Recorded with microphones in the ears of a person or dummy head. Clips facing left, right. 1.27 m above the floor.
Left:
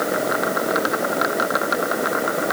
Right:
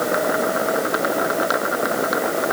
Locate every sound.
Only background noise.